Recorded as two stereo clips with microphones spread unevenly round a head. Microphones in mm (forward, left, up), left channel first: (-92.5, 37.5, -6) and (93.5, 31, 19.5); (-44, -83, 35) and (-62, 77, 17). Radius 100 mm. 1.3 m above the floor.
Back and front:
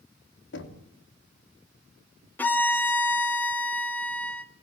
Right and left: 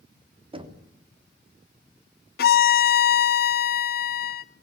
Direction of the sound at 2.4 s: 95° right.